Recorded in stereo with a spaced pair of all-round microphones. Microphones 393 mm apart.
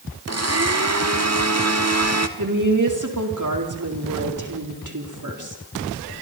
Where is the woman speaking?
50° right (ahead or behind), 4 m.